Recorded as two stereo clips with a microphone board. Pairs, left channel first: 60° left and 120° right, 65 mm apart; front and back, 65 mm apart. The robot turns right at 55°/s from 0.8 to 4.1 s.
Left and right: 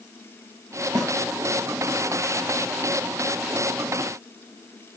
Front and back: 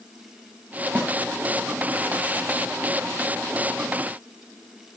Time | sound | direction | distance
0.9 | a snare drum | 110° right | 6 m